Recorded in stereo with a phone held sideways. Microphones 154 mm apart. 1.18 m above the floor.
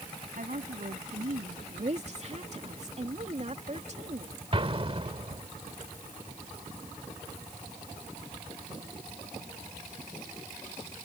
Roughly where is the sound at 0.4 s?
Right.